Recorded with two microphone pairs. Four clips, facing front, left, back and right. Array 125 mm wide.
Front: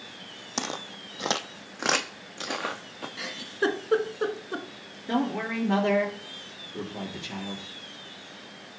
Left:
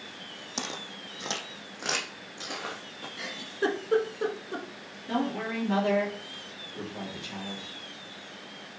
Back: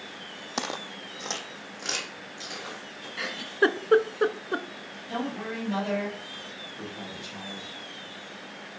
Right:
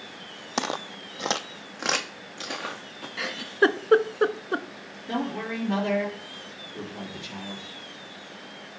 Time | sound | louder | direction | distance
0.6 | footsteps | right 9 dB, back 1 dB | 100° right | 0.7 m
3.2 | a giggle | right 8 dB, back 4 dB | 115° right | 0.5 m
5.1 | a man speaking | even, front 5 dB | 5° right | 3.5 m